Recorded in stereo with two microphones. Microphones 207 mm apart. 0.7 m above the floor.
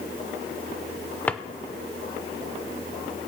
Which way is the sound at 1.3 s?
10° left (ahead or behind).